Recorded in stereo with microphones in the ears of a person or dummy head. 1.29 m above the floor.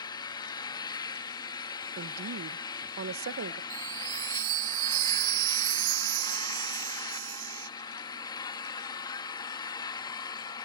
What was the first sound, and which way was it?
An engine running, 25° left (ahead or behind).